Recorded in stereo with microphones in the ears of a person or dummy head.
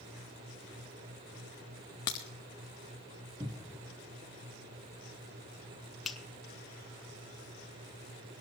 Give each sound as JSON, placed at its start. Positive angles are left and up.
{"t": 2.1, "sound": "a crack", "side_deg": 20, "distance_m": 0.5}
{"t": 3.4, "sound": "a cupboard door", "side_deg": -20, "distance_m": 0.9}
{"t": 6.0, "sound": "a finger snap", "side_deg": -5, "distance_m": 1.2}